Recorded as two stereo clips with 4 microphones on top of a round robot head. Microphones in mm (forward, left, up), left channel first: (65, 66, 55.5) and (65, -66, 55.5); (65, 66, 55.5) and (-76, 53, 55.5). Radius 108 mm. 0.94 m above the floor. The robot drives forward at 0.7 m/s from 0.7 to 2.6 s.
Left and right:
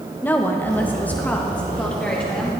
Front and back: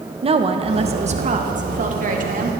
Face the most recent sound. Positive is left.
turn(degrees=175)